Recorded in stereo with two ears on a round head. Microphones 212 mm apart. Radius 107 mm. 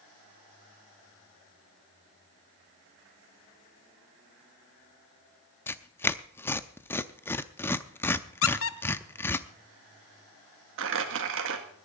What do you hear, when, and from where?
5.7 s tearing paper: 10° left (ahead or behind), 0.5 m
8.4 s a squeak: 60° left (ahead or behind), 0.9 m
10.8 s crumpling: 55° right (ahead or behind), 1.9 m